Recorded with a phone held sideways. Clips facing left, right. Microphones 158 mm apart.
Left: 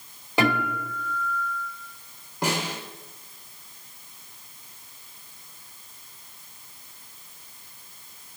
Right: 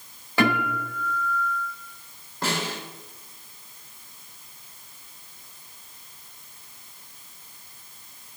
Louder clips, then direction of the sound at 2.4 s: Left 1 dB; 15° left (ahead or behind).